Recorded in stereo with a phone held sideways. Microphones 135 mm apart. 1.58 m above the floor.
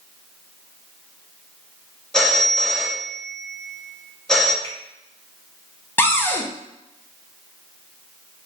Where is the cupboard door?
15° left (ahead or behind), 0.6 m.